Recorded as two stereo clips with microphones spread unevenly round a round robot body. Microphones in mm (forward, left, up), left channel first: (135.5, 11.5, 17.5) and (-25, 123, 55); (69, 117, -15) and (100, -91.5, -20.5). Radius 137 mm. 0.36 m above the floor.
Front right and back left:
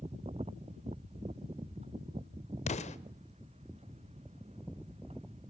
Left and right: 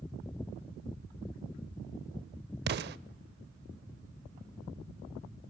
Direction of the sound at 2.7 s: 65° right.